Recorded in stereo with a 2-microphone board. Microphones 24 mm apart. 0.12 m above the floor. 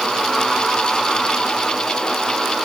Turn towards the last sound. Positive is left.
No sound to turn to.